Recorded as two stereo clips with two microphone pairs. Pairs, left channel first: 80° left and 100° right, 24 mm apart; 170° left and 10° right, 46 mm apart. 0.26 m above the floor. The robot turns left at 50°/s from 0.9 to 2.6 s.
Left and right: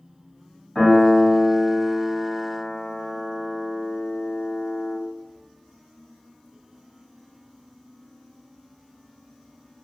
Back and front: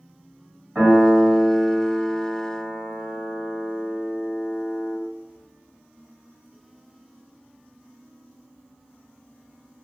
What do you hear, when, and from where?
0.8 s a piano: 55° left, 1.4 m; by 5.0 s 30° right, 1.4 m